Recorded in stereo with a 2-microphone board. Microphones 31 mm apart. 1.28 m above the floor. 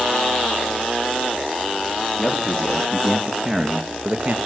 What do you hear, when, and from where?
2.2 s a man speaking: 5° left (ahead or behind), 3.5 m; by 4.4 s 55° right (ahead or behind), 1.8 m